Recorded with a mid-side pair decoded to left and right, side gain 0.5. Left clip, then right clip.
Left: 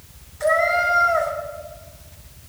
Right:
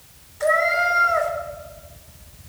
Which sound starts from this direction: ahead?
A cat meowing, at 0.4 s.